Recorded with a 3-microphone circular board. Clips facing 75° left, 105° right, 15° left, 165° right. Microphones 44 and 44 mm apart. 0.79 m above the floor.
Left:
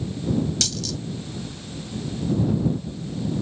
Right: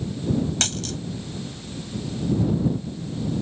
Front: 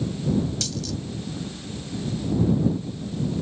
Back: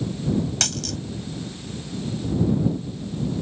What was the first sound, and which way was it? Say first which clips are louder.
A dropped coin: right 1 dB, back 2 dB; 150° right.